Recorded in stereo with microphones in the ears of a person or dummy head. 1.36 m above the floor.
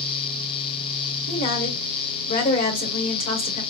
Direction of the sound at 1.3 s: 50° left (ahead or behind).